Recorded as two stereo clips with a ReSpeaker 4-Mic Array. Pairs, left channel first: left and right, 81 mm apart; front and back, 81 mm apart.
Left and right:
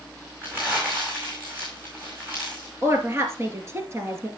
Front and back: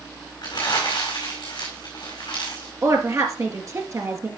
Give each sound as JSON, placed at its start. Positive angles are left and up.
{"t": 0.4, "sound": "crumpling", "azimuth_deg": -25, "distance_m": 5.0}
{"t": 2.8, "sound": "a woman speaking", "azimuth_deg": -140, "distance_m": 2.5}